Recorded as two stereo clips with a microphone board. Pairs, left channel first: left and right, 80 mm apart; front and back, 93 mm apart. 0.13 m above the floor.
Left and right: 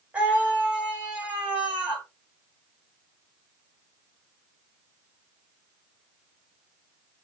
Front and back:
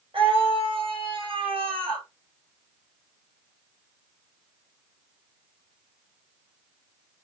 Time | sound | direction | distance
0.1 | a scream | 160° right | 6.5 m